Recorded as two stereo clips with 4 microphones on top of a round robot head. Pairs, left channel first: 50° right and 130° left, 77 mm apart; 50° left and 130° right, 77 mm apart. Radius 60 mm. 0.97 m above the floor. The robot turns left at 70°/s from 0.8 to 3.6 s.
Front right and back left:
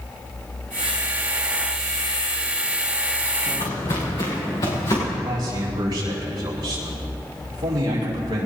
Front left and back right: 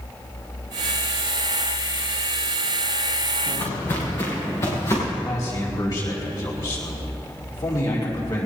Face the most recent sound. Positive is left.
turn(degrees=95)